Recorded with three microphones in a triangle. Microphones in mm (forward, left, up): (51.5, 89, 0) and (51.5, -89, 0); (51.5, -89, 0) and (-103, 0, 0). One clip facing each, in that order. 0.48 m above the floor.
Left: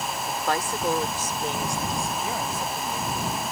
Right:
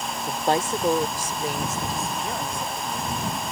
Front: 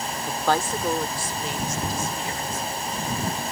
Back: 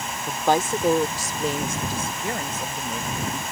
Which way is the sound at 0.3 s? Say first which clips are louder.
Right 5 dB, back 3 dB; 130° right.